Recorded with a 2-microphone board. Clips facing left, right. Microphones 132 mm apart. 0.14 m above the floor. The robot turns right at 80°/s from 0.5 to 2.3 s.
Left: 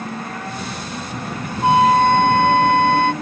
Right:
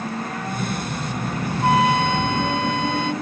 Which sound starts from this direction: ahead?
A flute, at 1.6 s.